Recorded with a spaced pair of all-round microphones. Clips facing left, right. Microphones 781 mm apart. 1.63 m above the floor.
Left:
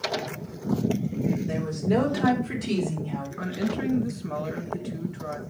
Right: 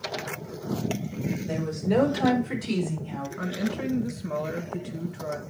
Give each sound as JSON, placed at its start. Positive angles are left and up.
{"t": 1.4, "sound": "a woman speaking", "side_deg": 40, "distance_m": 4.0}
{"t": 3.4, "sound": "a woman speaking", "side_deg": -5, "distance_m": 1.6}